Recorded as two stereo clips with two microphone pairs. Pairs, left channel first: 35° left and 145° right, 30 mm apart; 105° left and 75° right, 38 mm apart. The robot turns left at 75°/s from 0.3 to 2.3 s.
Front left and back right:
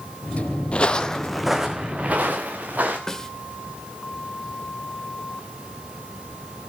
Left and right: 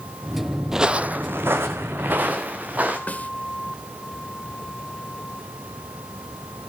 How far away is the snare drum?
About 1.2 m.